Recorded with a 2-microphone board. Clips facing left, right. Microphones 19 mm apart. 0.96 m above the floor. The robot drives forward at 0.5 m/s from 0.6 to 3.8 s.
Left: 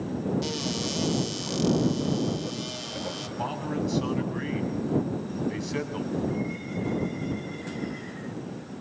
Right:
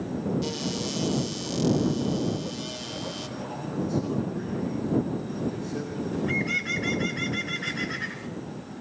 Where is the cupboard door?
10° left (ahead or behind), 1.4 m; by 3.3 s 5° left (ahead or behind), 2.5 m.